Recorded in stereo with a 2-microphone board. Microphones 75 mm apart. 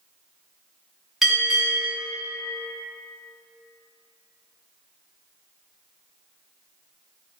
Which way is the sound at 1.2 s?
5° right (ahead or behind).